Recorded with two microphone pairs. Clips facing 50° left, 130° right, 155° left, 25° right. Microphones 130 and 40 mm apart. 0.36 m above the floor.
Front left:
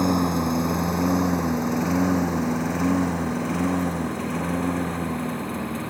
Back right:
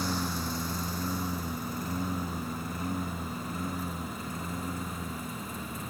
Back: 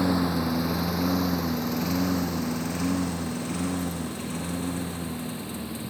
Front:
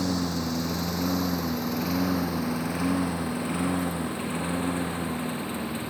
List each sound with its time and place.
0.0 s a lawn mower: 80° left; by 5.9 s 30° left